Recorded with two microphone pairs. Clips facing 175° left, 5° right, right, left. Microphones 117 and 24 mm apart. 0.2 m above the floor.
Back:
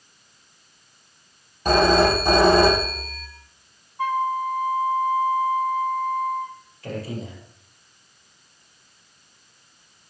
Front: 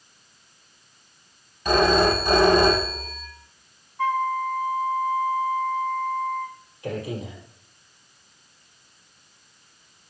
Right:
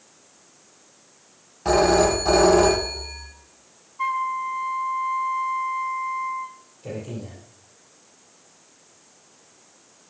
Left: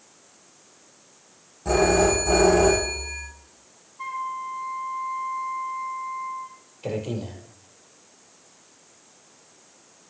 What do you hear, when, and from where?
1.6 s a phone ringing: 130° right, 5 m
4.0 s a flute: 120° right, 1.9 m
6.8 s a man speaking: 70° left, 5 m